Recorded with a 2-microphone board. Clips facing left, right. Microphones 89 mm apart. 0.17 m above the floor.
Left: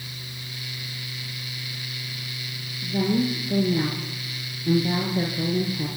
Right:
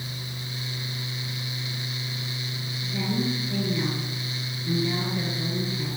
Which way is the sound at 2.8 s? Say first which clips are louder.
Left 5 dB; 40° left (ahead or behind).